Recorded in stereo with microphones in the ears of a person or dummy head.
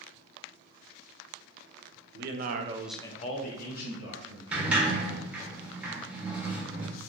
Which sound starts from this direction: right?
A man speaking, at 2.1 s.